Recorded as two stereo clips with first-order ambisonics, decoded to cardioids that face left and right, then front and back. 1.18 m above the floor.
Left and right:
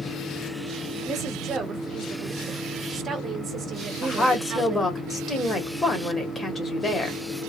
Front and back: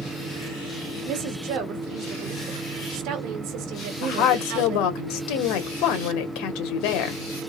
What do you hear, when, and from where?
1.1 s a woman speaking: 155° right, 1.2 m
4.0 s a woman speaking: 15° left, 1.3 m